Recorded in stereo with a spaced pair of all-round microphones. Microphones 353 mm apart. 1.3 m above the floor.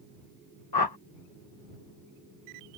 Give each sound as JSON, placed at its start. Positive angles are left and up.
{"t": 0.7, "sound": "a whoosh", "side_deg": 85}